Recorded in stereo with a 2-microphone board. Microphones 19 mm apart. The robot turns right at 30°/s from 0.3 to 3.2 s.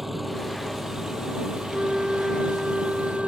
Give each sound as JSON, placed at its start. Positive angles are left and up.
{"t": 0.0, "sound": "an engine running", "azimuth_deg": -170}
{"t": 1.7, "sound": "a flute", "azimuth_deg": -80}